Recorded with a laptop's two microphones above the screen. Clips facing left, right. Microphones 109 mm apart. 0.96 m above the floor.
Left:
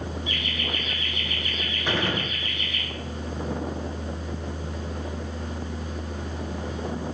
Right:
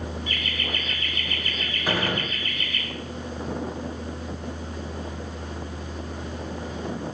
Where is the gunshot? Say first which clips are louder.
Right 1 dB; 10° right (ahead or behind), 2.0 m.